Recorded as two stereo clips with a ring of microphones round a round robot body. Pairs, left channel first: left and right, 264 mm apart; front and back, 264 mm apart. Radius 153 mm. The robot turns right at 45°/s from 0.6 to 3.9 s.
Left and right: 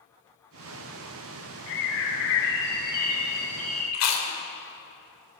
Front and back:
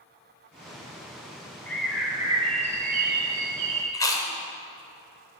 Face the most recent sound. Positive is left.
turn(degrees=75)